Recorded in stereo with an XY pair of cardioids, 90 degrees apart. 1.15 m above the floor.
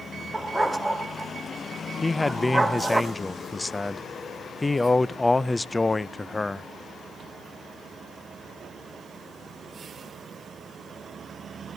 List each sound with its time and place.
0.3 s a dog barking: 10° right, 1.8 m
2.0 s a man speaking: 20° left, 0.6 m